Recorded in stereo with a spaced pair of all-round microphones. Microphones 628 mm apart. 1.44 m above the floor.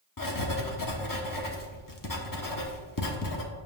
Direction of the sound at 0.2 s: 30° left (ahead or behind).